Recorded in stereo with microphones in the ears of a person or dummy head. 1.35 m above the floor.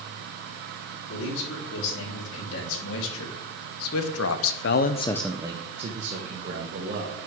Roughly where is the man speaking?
Left.